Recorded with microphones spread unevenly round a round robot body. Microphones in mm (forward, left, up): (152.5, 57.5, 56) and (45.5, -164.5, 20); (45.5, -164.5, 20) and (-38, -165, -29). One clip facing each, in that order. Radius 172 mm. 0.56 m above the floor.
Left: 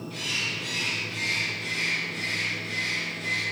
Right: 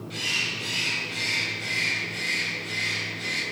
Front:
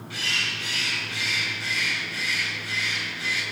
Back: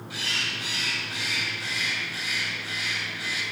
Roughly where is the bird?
Behind right.